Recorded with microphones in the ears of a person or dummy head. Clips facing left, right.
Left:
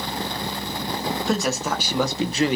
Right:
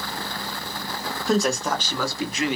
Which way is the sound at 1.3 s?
5° right (ahead or behind).